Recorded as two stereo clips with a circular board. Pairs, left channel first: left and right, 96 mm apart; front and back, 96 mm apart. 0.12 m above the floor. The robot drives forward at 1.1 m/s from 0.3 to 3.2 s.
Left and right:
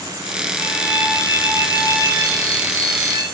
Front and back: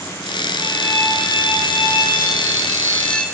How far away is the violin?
About 3.5 m.